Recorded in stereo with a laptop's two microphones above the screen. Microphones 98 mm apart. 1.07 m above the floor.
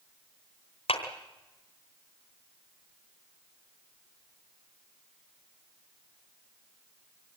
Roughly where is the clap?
Left.